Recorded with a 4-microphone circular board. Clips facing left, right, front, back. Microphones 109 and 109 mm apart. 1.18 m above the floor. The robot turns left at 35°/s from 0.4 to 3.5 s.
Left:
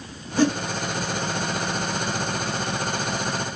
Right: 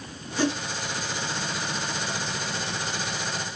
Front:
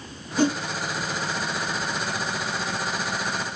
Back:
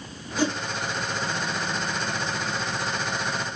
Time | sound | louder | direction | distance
0.4 | a whoosh | left 5 dB, front 4 dB | 45° left | 2 m